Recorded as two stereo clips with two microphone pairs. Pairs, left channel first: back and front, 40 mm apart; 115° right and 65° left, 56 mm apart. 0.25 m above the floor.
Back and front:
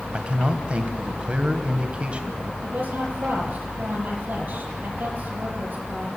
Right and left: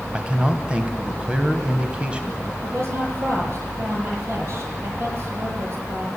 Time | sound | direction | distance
0.1 | a man speaking | 20° left | 1.7 m
2.6 | a woman speaking | 30° left | 6.5 m